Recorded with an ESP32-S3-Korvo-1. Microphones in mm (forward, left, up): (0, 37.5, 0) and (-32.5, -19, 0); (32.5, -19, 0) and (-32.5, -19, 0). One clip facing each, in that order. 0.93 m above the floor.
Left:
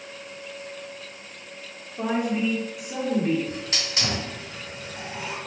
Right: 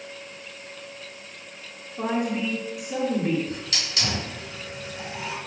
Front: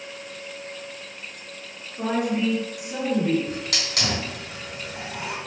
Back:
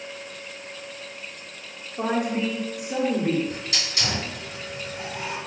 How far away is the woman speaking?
About 1.5 m.